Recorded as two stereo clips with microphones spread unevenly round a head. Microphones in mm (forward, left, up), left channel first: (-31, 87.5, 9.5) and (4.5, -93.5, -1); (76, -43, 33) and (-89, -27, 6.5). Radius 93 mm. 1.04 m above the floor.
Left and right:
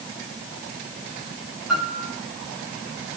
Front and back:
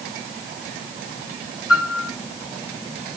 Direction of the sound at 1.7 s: 10° left.